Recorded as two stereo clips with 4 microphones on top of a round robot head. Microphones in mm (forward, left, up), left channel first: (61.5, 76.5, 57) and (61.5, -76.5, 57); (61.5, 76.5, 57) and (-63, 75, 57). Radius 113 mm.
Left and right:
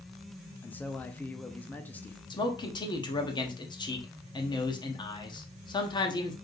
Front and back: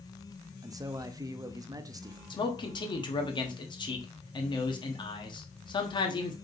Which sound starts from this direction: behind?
A man speaking, at 0.6 s.